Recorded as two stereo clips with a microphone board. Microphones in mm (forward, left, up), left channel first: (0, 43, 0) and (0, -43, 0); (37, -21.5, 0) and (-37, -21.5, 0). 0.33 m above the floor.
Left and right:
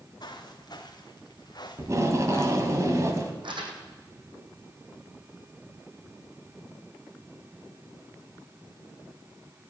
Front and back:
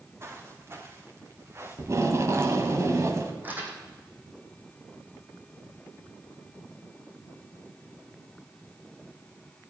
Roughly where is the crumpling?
Behind right.